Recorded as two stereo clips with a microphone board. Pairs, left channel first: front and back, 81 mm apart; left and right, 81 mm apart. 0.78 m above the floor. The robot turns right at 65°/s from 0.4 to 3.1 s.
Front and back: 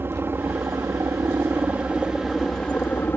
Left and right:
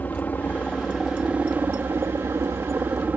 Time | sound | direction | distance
0.0 | a helicopter | 145° left | ?